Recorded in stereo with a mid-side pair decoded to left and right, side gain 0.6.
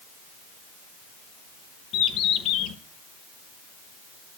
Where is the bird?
65° left, 1.1 m.